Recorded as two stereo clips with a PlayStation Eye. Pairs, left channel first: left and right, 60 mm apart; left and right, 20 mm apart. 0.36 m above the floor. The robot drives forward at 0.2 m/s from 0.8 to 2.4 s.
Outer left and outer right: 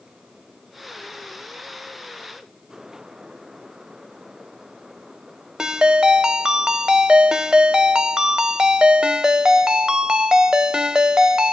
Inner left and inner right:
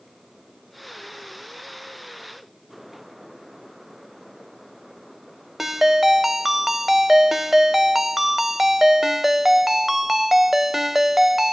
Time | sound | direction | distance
5.6 | a ringtone | 15° right (ahead or behind) | 0.6 m